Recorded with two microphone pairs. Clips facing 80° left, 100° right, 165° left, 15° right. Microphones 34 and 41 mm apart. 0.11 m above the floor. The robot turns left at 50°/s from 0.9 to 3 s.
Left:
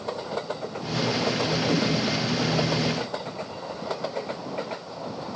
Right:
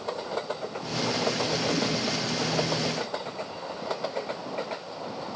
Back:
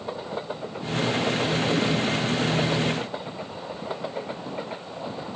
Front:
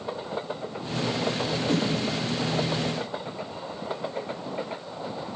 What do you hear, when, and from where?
1.7 s a whoosh: 20° left, 4.5 m; by 1.9 s 10° left, 4.5 m